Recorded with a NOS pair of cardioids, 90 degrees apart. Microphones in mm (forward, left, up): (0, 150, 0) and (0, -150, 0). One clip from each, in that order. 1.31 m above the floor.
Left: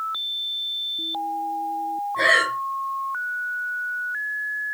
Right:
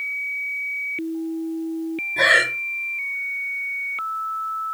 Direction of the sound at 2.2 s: 30° right.